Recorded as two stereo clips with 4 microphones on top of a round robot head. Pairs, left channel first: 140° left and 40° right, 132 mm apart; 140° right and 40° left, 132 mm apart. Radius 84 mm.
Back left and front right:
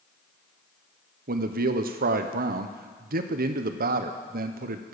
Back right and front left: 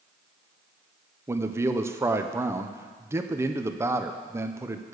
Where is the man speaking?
30° right, 0.9 m.